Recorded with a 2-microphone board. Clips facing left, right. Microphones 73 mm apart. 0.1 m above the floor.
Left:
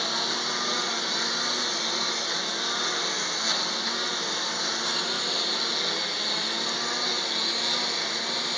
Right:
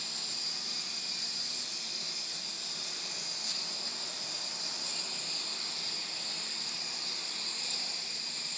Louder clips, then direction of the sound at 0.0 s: Left 17 dB; 65° left (ahead or behind).